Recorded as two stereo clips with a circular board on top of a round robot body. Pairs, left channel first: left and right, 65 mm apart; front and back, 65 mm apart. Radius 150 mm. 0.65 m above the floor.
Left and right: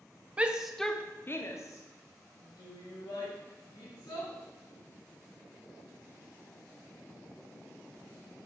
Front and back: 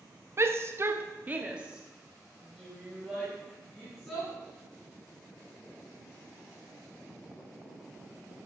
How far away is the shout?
About 0.8 m.